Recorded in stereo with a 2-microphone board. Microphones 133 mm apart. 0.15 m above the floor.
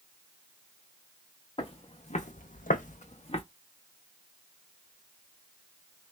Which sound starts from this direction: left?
Footsteps, at 1.6 s.